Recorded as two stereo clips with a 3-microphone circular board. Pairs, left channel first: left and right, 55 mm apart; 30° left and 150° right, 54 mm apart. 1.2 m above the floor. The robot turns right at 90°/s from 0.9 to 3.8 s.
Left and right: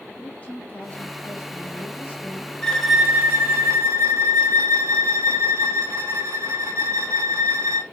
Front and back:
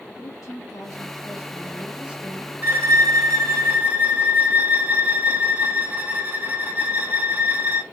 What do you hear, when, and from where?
0.2 s a woman speaking: 30° left, 1.6 m; by 2.5 s 175° left, 1.6 m
2.6 s a violin: 160° left, 0.8 m; by 7.8 s 95° right, 0.8 m